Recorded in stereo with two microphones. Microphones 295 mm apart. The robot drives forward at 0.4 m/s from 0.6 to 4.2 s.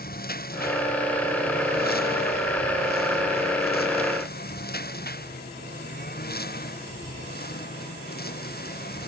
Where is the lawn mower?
30° left (ahead or behind); by 9.1 s 35° left (ahead or behind).